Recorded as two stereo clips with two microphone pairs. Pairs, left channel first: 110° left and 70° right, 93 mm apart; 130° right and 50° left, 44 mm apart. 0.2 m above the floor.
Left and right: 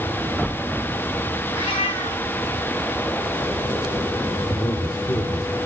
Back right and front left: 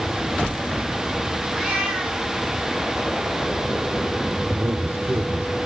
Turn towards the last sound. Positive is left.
turn(degrees=65)